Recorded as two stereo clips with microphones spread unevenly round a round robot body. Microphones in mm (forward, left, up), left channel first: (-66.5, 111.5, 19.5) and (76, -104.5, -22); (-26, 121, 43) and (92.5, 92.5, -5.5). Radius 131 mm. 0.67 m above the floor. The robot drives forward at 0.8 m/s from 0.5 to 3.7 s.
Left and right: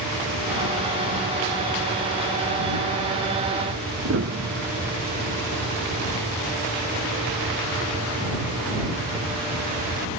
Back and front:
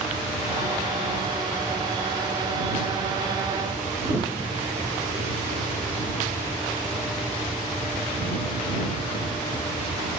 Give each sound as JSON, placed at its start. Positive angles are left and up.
{"t": 4.0, "sound": "a piano", "azimuth_deg": -105}